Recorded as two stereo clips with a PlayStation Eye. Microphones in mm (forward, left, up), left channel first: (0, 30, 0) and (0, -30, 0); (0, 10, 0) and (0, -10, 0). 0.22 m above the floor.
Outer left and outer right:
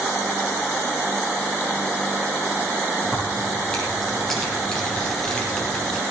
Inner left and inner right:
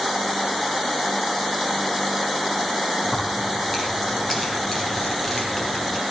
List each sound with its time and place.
3.0 s keys jangling: 5° left (ahead or behind), 5 m; by 6.0 s 15° left (ahead or behind), 3.5 m